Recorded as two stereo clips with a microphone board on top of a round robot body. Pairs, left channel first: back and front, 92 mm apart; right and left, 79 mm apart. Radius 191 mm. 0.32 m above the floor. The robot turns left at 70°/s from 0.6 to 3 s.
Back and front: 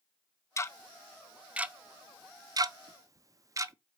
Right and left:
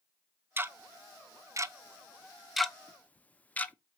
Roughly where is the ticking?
Behind left.